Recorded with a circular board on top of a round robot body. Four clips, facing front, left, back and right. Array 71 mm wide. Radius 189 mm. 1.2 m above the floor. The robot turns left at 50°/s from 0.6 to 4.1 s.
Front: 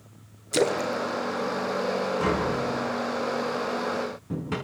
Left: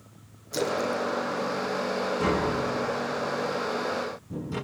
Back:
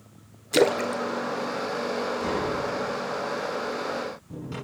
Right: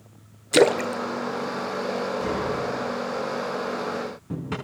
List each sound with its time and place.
0.5 s a splash: 105° right, 0.8 m; by 2.7 s 155° left, 0.8 m
2.2 s tapping: 35° left, 7 m; by 4.5 s 60° right, 7 m